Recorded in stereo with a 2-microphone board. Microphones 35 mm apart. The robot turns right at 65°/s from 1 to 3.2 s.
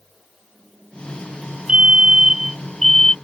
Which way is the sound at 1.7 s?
25° right (ahead or behind).